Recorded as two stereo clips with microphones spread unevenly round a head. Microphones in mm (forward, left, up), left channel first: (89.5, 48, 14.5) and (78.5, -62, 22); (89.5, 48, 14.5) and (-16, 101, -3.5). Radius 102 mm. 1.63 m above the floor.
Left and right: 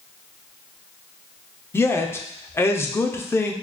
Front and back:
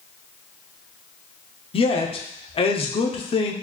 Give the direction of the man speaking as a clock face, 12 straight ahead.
12 o'clock.